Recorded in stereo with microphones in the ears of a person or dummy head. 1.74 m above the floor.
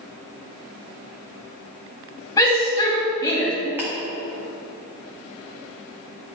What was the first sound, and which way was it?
A shout, 20° left (ahead or behind).